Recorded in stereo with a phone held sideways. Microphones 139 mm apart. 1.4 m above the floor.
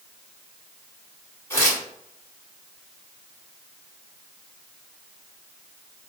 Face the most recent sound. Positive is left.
turn(degrees=20)  # may be behind; listen again after turning